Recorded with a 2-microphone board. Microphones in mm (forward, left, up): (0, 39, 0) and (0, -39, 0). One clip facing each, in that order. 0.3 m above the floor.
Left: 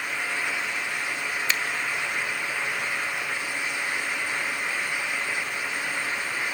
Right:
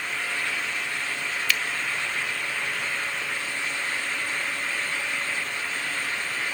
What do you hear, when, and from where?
1.5 s a finger snap: 25° left (ahead or behind), 1.2 m